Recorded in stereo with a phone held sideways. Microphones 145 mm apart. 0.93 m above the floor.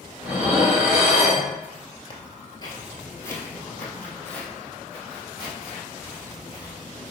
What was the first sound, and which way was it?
Dishes clattering, 10° right (ahead or behind).